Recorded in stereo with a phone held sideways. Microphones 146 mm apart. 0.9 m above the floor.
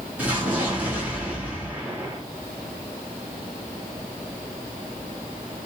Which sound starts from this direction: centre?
An explosion, at 0.2 s.